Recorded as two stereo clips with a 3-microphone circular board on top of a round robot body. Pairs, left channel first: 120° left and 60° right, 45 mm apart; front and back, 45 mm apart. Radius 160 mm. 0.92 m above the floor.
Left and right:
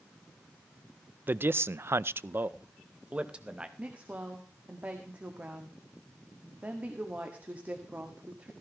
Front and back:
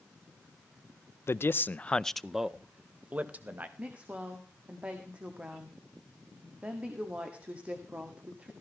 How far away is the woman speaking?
About 1.9 m.